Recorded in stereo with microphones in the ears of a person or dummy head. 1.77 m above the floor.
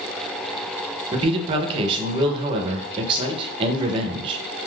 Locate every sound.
1.1 s a man speaking: 35° right (ahead or behind), 0.6 m